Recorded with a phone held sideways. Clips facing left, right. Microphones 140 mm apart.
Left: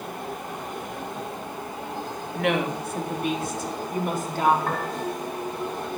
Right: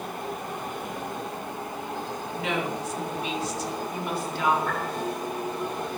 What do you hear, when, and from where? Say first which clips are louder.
2.4 s a woman speaking: left 5 dB; 65° left (ahead or behind), 3.5 m; by 4.6 s 45° left (ahead or behind), 4.5 m
4.7 s a piano: left 1 dB; 60° left (ahead or behind), 8 m